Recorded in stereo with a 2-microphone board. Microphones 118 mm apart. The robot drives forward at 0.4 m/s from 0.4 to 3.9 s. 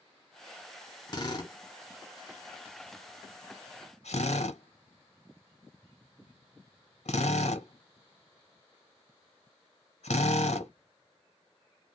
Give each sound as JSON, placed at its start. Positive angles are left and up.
{"t": 1.1, "sound": "a drill", "side_deg": 35, "distance_m": 1.4}